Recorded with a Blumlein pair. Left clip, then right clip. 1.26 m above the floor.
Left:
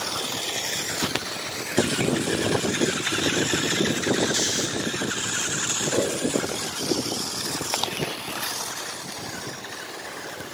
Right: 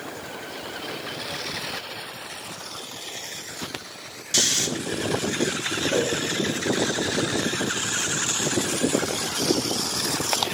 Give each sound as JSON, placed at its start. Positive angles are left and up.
{"t": 4.3, "sound": "snoring", "azimuth_deg": -65, "distance_m": 0.6}
{"t": 5.9, "sound": "a whoosh", "azimuth_deg": -10, "distance_m": 3.0}